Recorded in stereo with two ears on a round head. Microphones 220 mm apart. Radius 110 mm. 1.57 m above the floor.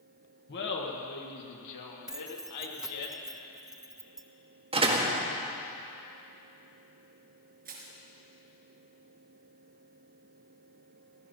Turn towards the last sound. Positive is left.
turn(degrees=-35)  # may be behind; listen again after turning